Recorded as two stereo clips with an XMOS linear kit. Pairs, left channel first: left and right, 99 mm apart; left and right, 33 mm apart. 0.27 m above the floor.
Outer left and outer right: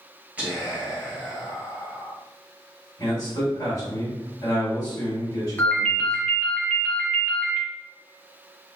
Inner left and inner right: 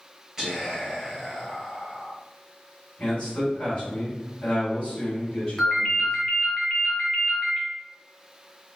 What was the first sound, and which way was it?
Whispering, 15° right (ahead or behind).